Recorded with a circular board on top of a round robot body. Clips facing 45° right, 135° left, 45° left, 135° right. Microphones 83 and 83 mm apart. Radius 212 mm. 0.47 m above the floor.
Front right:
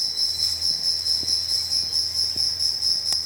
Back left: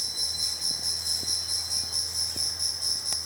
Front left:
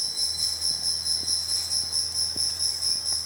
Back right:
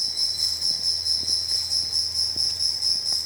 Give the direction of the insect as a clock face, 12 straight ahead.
9 o'clock.